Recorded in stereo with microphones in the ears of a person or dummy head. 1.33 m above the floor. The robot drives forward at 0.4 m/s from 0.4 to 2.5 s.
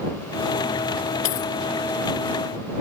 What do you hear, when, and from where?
1.2 s a dropped coin: 40° left (ahead or behind)